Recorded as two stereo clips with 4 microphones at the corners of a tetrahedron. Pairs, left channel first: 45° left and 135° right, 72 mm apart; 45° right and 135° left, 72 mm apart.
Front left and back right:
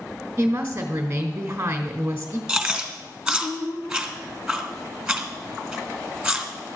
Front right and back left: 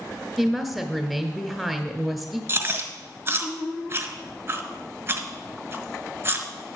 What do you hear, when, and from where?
0.4 s a woman speaking: 130° right, 1.2 m
2.5 s chewing: 155° left, 1.6 m